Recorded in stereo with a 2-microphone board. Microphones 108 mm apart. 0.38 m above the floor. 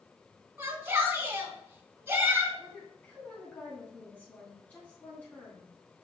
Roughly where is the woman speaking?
Centre.